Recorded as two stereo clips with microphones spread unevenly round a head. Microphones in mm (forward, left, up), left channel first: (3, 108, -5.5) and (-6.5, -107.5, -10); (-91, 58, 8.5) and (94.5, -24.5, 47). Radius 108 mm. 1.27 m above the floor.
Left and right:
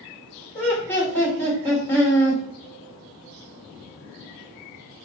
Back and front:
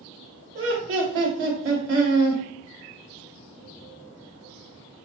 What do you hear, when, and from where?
0.6 s laughter: 5° left, 1.7 m